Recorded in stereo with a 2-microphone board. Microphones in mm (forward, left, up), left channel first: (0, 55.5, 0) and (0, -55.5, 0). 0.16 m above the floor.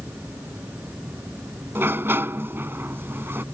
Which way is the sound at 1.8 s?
20° right (ahead or behind).